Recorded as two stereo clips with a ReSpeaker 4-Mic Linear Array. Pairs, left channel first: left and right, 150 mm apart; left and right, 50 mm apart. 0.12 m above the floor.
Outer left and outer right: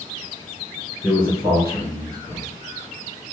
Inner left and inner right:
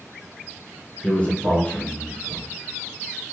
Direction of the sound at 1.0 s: 25° left (ahead or behind).